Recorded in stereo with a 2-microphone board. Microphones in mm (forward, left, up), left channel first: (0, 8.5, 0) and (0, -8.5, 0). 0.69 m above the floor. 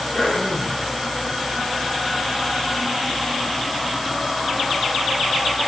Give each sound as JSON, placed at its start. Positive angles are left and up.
{"t": 0.1, "sound": "throat clearing", "side_deg": 45, "distance_m": 7.0}